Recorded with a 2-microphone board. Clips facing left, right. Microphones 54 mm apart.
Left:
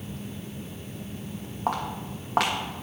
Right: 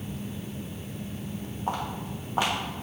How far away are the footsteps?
About 3 m.